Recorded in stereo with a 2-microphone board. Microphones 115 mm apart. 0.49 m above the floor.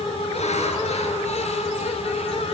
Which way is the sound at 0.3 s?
75° left (ahead or behind).